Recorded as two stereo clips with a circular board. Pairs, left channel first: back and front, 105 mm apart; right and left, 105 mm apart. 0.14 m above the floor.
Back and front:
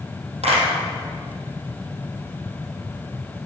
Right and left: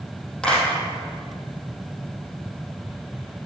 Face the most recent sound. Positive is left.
turn(degrees=-5)